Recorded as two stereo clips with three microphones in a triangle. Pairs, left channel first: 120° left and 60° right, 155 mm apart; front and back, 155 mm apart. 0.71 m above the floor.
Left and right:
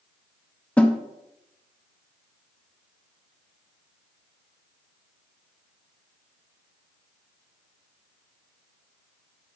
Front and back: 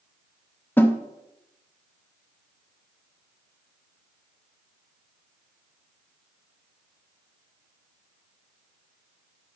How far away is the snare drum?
About 0.6 m.